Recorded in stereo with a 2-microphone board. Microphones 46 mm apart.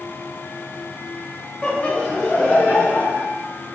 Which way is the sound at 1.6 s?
15° left (ahead or behind).